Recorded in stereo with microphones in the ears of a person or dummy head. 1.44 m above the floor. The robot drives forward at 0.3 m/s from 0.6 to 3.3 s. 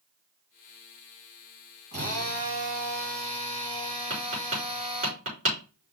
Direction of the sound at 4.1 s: 40° right (ahead or behind).